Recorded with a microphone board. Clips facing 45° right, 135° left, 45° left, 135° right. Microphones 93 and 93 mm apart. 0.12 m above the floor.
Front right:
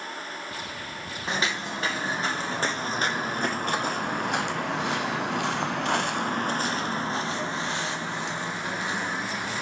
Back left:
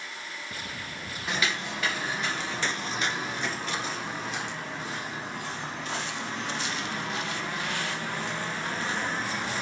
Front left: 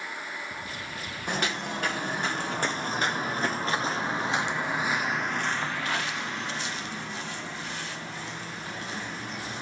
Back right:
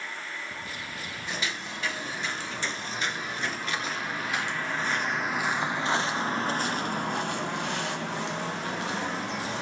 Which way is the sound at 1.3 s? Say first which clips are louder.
Front right 2 dB, front left 6 dB; 10° left.